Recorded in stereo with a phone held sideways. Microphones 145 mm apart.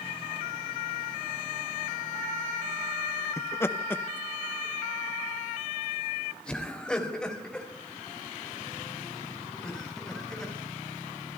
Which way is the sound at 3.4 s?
20° left (ahead or behind).